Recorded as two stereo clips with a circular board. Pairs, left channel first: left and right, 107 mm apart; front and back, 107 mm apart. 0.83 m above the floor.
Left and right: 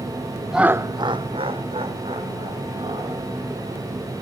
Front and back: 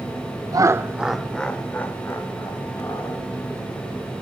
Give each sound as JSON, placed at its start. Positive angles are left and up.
{"t": 0.5, "sound": "laughter", "azimuth_deg": -175, "distance_m": 0.6}